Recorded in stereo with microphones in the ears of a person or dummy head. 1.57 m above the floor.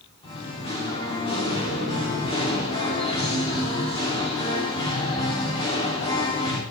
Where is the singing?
25° left (ahead or behind), 3.5 m.